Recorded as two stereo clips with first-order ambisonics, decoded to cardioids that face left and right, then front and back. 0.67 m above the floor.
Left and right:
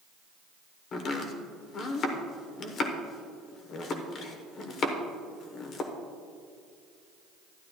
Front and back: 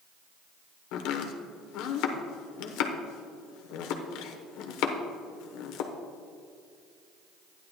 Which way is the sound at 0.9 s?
30° left.